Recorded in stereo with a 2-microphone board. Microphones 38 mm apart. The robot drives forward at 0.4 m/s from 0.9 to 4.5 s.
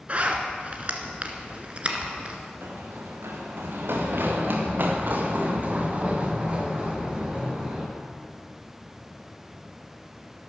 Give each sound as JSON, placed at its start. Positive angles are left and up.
{"t": 0.1, "sound": "a zipper", "side_deg": -40, "distance_m": 1.7}
{"t": 2.6, "sound": "running footsteps", "side_deg": -80, "distance_m": 3.5}